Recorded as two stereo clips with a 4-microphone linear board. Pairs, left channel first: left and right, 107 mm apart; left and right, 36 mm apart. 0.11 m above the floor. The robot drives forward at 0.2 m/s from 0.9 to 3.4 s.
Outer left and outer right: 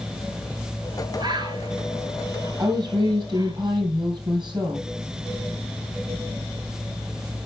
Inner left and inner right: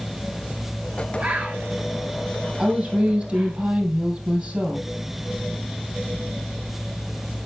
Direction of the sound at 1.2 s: 45° right (ahead or behind).